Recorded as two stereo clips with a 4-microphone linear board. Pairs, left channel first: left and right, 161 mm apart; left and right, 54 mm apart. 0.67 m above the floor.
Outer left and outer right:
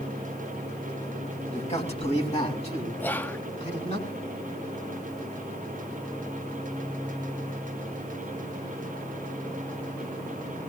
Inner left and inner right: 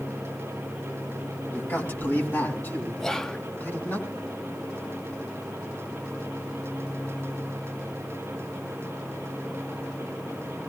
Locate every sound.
1.5 s a man speaking: 40° left (ahead or behind), 5.5 m
3.0 s whispering: 10° left (ahead or behind), 0.6 m